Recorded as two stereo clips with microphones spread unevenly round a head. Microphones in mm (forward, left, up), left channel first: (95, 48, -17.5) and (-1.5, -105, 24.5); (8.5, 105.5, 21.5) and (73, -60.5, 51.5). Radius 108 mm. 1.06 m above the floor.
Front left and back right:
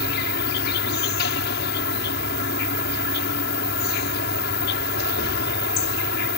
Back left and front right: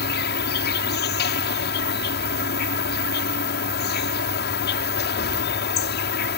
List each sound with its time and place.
0.0 s an insect: 95° left